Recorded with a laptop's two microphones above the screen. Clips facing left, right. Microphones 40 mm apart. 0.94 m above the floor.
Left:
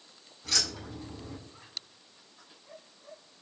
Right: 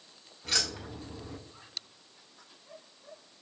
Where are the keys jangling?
25° right (ahead or behind), 1.5 m.